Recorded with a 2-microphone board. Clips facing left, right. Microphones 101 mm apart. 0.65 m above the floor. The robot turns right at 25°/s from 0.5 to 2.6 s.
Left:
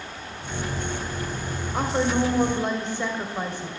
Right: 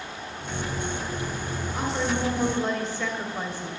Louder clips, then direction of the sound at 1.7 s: Left 5 dB; 40° left (ahead or behind).